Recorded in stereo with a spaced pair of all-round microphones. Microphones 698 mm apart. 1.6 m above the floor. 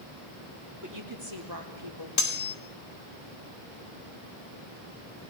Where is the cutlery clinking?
55° left (ahead or behind), 1.4 m.